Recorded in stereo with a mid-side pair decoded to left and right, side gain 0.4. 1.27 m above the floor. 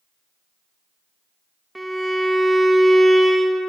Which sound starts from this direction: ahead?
A violin, at 1.8 s.